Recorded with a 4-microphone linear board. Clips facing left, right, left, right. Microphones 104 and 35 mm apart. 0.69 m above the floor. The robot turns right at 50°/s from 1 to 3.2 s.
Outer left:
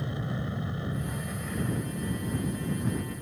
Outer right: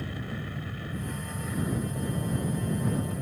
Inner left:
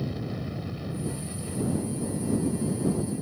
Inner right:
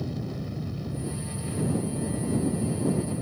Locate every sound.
0.0 s an aircraft: 160° left; by 3.2 s 90° right